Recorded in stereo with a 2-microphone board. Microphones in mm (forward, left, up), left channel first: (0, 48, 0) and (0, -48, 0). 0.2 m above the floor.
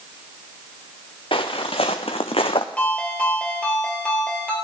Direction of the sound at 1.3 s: 65° left (ahead or behind).